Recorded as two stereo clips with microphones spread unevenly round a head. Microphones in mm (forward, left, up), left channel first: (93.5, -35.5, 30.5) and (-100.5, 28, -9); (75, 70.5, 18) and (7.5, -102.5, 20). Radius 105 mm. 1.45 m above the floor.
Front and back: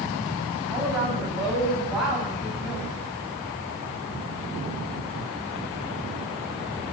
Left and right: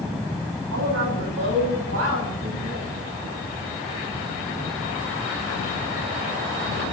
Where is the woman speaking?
115° right, 9.5 m; by 2.9 s 105° right, 9 m.